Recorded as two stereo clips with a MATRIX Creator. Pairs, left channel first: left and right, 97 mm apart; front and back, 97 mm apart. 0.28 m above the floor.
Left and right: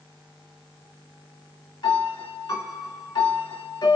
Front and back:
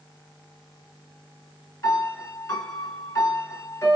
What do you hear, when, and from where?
1.8 s a piano: 55° left, 1.3 m